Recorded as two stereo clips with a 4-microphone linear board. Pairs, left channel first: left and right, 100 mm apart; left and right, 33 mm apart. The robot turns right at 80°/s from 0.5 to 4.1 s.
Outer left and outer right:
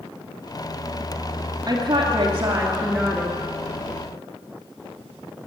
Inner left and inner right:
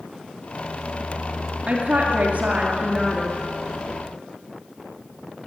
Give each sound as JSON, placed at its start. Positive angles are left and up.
{"t": 1.7, "sound": "a woman speaking", "azimuth_deg": -115, "distance_m": 1.9}